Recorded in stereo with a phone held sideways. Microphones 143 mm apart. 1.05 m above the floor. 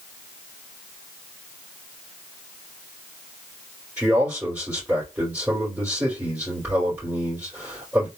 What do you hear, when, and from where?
4.0 s a man speaking: 15° right (ahead or behind), 3 m